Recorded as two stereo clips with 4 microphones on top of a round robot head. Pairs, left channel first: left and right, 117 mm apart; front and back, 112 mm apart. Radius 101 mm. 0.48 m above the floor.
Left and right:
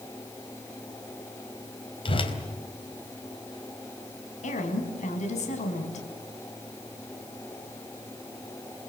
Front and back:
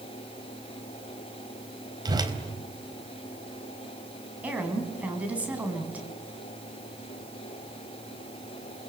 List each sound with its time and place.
2.0 s a whoosh: 130° left, 4 m
4.4 s a woman speaking: 105° left, 5 m